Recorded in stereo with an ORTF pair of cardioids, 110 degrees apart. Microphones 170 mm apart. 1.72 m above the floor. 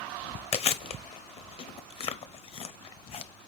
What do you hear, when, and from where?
0.5 s chewing: 35° left, 0.7 m